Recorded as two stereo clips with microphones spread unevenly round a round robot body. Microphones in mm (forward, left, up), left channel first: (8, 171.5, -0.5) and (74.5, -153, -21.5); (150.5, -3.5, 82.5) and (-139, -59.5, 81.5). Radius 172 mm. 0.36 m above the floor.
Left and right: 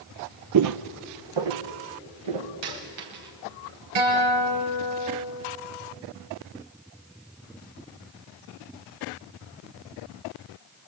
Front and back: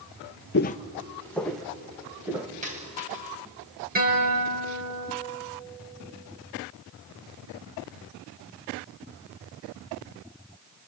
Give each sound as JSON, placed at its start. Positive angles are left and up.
{"t": 0.5, "sound": "footsteps", "azimuth_deg": -40, "distance_m": 0.6}
{"t": 2.6, "sound": "a dropped coin", "azimuth_deg": -105, "distance_m": 4.5}
{"t": 4.0, "sound": "a guitar", "azimuth_deg": -110, "distance_m": 5.5}